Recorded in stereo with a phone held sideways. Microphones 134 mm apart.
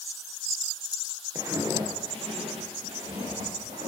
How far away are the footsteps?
About 1.4 m.